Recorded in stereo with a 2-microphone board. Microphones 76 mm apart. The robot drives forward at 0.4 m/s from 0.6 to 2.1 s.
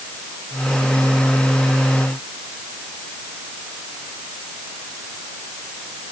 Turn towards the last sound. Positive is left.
No sound to turn to.